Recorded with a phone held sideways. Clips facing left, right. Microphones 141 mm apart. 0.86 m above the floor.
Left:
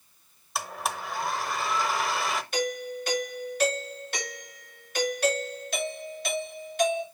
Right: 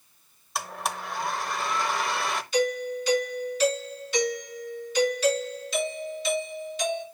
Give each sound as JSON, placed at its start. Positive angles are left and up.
{"t": 0.6, "sound": "a blender", "side_deg": 0, "distance_m": 0.8}
{"t": 2.5, "sound": "a doorbell", "side_deg": 60, "distance_m": 3.0}